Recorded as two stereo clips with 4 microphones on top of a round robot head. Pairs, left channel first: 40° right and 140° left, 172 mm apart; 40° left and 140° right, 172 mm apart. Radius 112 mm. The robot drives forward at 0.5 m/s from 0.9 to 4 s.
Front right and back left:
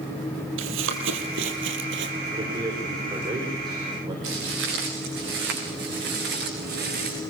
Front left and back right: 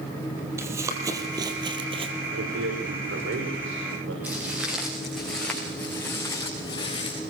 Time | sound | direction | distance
0.6 | running footsteps | 145° left | 3.5 m
2.3 | a man speaking | 150° right | 5.5 m
4.2 | footsteps | 140° left | 8 m